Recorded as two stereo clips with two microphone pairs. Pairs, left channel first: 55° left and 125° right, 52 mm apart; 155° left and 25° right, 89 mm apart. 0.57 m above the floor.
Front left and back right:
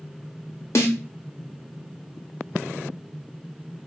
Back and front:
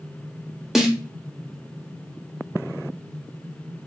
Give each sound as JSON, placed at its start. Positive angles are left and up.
{"t": 0.8, "sound": "a snare drum", "azimuth_deg": 60, "distance_m": 0.8}